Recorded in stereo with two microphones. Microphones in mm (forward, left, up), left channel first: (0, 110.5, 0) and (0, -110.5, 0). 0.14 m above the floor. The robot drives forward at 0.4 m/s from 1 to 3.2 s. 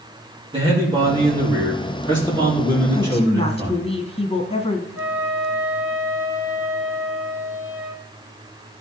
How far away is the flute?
About 3.5 m.